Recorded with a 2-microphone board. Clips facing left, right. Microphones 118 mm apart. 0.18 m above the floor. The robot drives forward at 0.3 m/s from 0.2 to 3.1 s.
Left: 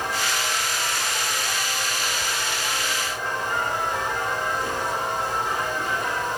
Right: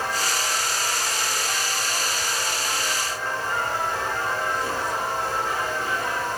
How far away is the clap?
I don't hear a clap.